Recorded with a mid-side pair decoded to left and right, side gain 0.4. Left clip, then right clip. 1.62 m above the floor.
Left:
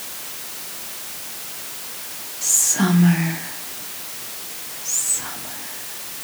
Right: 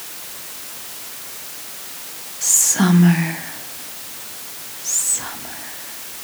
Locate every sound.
2.4 s whispering: 30° right, 0.5 m